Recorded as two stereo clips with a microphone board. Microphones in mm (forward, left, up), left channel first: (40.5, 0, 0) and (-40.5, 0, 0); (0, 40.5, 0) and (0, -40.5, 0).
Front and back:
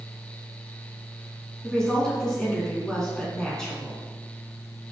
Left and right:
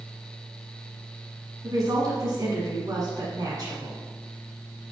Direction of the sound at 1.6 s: 80° right.